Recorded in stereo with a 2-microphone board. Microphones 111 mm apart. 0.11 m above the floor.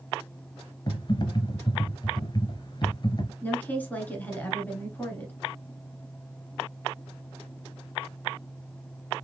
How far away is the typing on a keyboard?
About 0.8 m.